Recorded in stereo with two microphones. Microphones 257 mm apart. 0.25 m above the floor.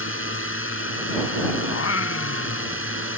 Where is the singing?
70° left (ahead or behind).